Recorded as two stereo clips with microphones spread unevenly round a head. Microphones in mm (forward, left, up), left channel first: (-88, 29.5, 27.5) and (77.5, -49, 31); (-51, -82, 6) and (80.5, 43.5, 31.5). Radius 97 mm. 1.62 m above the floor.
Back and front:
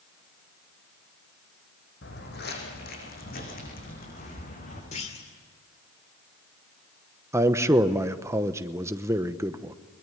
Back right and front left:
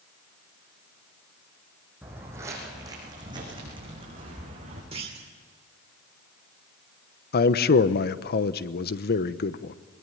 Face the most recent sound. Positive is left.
turn(degrees=-100)